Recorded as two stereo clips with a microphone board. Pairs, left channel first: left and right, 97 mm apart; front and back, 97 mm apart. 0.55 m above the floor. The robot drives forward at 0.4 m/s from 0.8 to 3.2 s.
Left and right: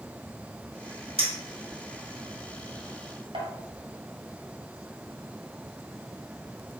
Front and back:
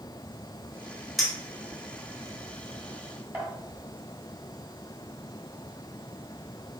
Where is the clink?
90° right, 2 m; by 3.5 s 110° right, 2 m.